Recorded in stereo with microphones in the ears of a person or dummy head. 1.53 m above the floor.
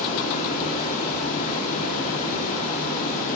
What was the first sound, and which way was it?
Running water, 45° left (ahead or behind).